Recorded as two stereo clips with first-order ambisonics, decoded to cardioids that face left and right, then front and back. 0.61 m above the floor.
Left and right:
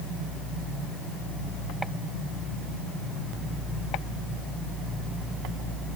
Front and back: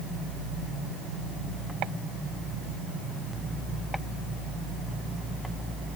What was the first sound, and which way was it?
Only background noise.